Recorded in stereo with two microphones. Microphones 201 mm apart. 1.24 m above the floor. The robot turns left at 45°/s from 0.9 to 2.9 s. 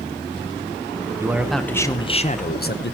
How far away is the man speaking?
About 0.7 m.